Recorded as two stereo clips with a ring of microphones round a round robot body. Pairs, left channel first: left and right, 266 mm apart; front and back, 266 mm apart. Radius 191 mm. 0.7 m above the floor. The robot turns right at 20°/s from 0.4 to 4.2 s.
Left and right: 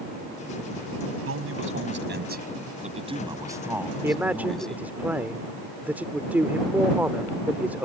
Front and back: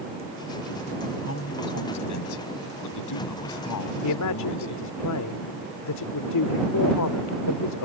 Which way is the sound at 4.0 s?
10° right.